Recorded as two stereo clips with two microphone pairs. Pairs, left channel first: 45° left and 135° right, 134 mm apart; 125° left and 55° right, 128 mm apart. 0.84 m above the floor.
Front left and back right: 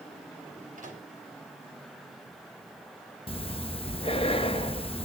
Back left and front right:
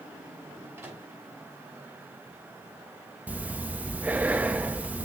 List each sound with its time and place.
0.8 s a microwave: 125° right, 5 m
3.3 s breathing: 20° left, 0.7 m